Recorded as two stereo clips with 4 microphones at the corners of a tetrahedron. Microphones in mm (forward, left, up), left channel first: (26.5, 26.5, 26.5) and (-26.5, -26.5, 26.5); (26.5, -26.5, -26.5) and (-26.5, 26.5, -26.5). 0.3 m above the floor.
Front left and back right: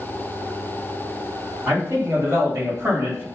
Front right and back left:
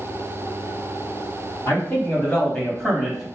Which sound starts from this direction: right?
A man speaking, at 1.7 s.